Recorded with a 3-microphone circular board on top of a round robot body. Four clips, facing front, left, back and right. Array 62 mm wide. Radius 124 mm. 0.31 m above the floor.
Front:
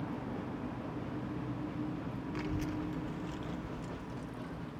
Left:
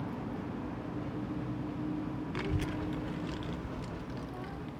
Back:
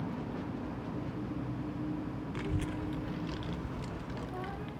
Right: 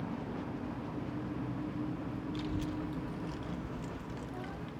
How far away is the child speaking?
About 1.1 m.